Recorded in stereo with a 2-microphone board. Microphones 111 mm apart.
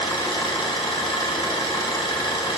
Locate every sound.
0.0 s an engine running: 40° left (ahead or behind), 0.9 m